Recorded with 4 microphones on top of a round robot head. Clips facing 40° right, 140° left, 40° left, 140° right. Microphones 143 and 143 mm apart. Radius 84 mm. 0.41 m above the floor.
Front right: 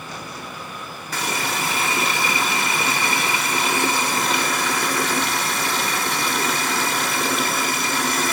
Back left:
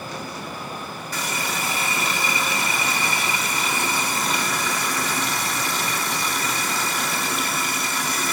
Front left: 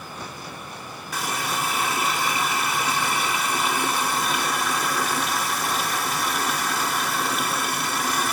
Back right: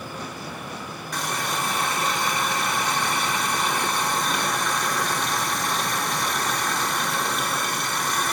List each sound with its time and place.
1.1 s a running tap: 45° right, 1.1 m